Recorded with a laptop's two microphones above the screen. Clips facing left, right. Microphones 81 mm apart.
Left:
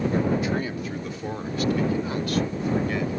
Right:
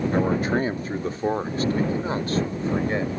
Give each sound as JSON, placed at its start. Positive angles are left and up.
{"t": 0.1, "sound": "a man speaking", "side_deg": -45}